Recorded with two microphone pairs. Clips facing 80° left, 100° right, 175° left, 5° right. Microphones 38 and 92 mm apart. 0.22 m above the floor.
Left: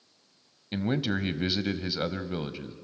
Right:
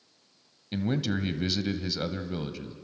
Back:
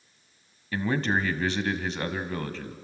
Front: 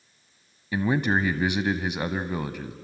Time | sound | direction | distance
0.7 | a man speaking | 50° left | 1.1 m